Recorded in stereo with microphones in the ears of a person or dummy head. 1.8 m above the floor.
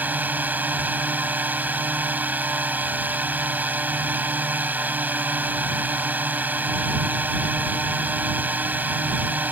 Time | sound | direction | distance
0.0 | a drone | 5° right (ahead or behind) | ?